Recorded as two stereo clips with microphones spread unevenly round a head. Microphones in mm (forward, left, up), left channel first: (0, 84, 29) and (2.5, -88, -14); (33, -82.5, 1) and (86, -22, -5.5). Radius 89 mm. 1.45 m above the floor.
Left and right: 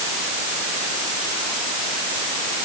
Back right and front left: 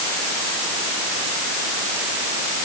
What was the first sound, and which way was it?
Only background noise.